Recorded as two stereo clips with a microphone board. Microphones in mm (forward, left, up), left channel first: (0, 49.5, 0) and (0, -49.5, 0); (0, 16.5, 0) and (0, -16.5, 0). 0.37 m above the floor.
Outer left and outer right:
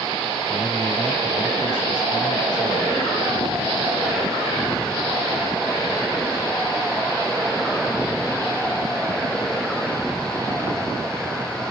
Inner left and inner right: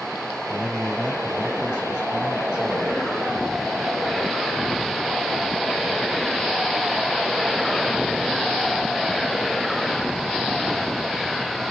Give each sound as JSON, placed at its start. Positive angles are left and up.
{"t": 0.5, "sound": "a man speaking", "side_deg": -45, "distance_m": 6.0}